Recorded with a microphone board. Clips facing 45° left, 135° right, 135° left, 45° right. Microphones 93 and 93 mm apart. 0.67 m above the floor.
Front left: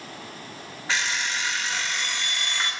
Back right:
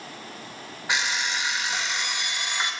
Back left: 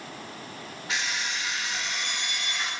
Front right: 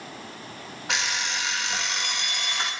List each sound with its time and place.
0.9 s an alarm clock: 60° right, 0.8 m